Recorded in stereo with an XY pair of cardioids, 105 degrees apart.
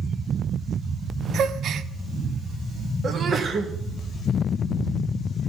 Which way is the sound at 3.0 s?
45° right.